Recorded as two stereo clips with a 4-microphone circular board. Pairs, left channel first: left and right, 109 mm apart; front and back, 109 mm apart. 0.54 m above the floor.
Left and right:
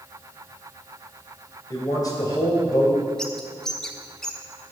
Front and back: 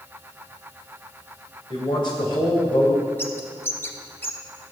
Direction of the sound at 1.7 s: 40° left.